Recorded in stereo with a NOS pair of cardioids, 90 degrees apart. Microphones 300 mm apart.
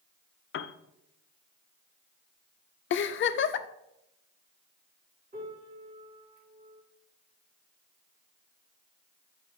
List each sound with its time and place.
0.5 s a piano: 45° left, 0.6 m
2.9 s a giggle: 45° left, 0.5 m
5.3 s a piano: 30° right, 3 m